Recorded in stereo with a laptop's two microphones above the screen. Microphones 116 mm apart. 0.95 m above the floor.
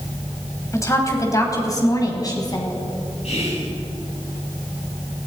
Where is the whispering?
65° left (ahead or behind), 8 m.